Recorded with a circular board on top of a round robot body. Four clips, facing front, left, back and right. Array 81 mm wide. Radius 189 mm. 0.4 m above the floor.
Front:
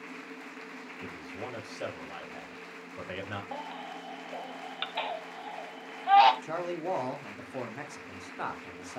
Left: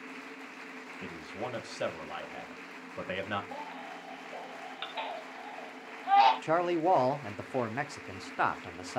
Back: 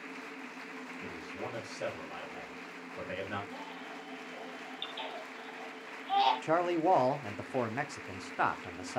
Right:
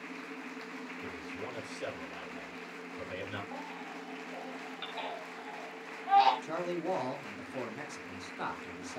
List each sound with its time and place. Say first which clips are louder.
1.0 s a man speaking: left 6 dB, front 1 dB; 80° left, 3 m
3.5 s a baby crying: left 1 dB, front 5 dB; 15° left, 1.3 m
6.4 s a man speaking: left 8 dB, back 5 dB; 120° left, 1.4 m